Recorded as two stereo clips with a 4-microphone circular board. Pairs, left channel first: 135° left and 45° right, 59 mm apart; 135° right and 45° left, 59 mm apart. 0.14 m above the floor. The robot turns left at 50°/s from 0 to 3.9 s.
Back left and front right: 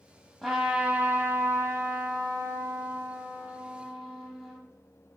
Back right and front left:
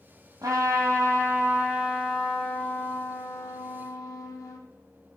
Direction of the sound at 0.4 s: 40° left.